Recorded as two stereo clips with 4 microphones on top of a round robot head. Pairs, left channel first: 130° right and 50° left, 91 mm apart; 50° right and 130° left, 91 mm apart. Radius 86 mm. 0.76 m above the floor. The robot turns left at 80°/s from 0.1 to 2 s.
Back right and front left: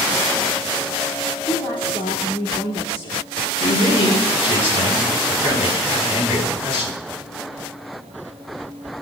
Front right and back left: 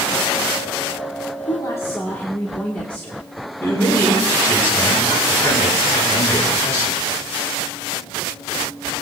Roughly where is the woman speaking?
Right.